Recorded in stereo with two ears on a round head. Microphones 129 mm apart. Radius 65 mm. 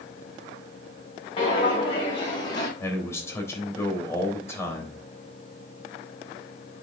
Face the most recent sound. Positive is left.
turn(degrees=20)  # may be behind; listen again after turning